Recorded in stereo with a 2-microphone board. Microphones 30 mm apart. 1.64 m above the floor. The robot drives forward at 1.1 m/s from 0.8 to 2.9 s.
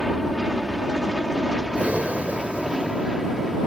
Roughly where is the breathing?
Right.